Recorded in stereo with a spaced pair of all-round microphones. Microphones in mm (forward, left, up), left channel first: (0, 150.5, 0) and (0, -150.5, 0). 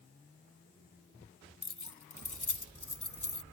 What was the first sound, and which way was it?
Keys jangling, 60° left (ahead or behind).